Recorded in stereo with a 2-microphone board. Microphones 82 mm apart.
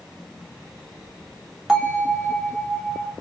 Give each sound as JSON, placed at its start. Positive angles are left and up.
{"t": 1.7, "sound": "a bell", "side_deg": -10, "distance_m": 2.5}